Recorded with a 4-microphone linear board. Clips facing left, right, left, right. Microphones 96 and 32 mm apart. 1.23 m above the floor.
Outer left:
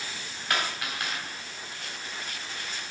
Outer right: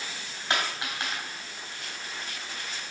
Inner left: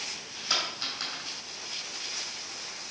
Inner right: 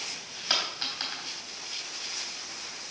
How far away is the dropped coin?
About 3 m.